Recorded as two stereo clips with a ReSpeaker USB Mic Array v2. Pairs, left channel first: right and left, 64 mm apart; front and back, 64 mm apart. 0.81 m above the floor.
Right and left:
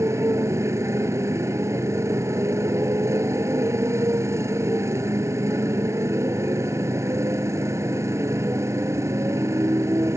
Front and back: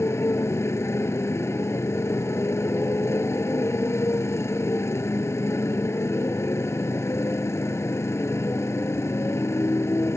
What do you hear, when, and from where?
0.0 s a motorcycle: 45° left